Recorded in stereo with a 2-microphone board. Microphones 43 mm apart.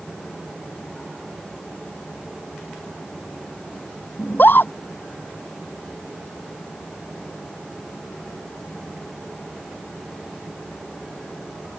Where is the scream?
50° left (ahead or behind).